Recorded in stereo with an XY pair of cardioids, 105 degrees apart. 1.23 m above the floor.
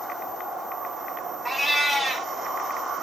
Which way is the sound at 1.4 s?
10° right.